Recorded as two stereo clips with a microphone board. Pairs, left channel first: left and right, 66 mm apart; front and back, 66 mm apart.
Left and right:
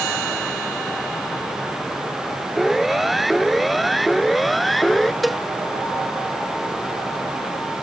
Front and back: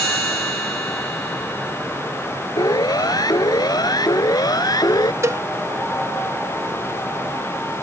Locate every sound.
2.6 s a siren: straight ahead
5.2 s a cowbell: straight behind